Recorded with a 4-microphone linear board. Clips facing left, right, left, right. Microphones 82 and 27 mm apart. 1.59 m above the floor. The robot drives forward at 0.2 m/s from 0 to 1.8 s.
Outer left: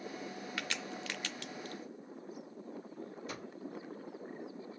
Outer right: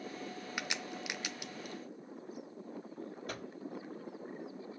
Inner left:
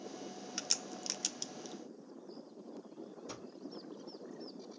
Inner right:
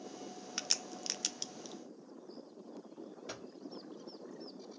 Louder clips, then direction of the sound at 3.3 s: Outer right 3 dB, inner right 3 dB; 55° right (ahead or behind).